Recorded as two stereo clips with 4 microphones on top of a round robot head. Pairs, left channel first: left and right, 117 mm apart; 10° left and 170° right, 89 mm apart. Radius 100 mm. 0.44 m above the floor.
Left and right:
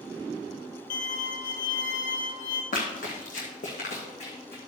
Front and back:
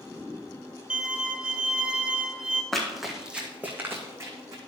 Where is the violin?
110° left, 1.1 m.